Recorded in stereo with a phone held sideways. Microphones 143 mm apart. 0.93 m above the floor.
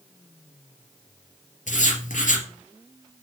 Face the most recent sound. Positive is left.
turn(degrees=70)  # may be behind; listen again after turning